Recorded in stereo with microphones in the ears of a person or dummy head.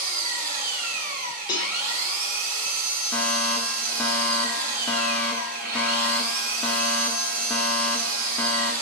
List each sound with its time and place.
0.0 s an engine running: 45° right (ahead or behind), 1.2 m
1.5 s a cowbell: 15° left (ahead or behind), 1.8 m
3.1 s a fire alarm: 10° left (ahead or behind), 1.3 m